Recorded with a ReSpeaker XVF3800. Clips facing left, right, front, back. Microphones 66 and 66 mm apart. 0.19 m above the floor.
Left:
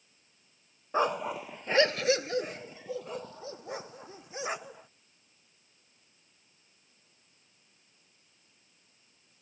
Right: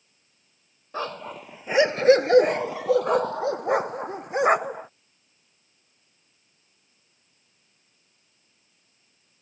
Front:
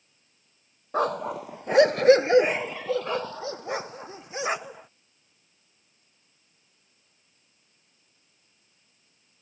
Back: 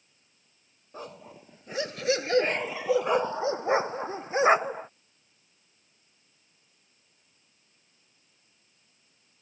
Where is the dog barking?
15° left; by 4.9 s 125° right.